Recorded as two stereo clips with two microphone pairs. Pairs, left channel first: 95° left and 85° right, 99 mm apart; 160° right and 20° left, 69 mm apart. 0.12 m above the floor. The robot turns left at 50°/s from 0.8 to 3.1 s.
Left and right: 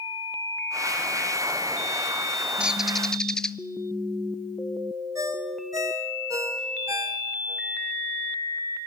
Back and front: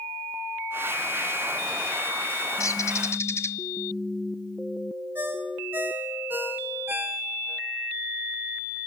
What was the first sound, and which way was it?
A bird, 165° right.